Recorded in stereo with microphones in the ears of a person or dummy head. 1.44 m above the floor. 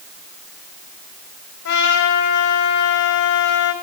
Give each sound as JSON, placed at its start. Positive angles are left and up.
{"t": 1.6, "sound": "a trumpet", "side_deg": 65, "distance_m": 3.5}